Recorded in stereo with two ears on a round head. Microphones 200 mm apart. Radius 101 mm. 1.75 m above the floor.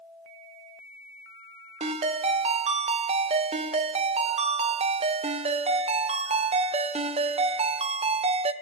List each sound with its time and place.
1.8 s a ringtone: 25° right (ahead or behind), 0.6 m